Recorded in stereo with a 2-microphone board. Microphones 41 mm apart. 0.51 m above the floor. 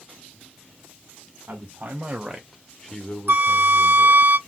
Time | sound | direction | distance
1.5 | a man speaking | 55° right (ahead or behind) | 1.6 m
3.3 | a flute | 70° right (ahead or behind) | 0.9 m